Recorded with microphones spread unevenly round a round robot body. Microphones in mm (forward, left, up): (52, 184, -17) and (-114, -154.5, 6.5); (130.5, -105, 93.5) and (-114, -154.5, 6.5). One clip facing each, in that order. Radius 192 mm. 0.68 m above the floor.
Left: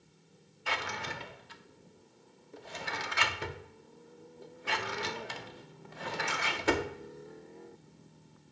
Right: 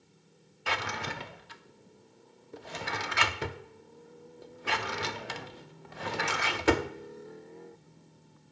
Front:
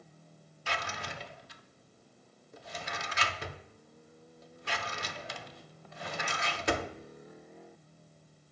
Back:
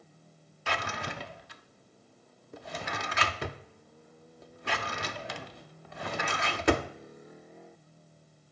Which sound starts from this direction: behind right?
A drawer, at 0.7 s.